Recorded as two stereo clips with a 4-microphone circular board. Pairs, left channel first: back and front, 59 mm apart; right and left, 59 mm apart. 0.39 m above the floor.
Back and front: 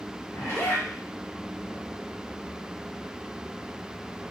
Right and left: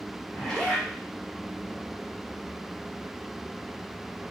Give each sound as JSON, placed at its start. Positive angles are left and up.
{"t": 0.3, "sound": "a zipper", "azimuth_deg": -160, "distance_m": 0.8}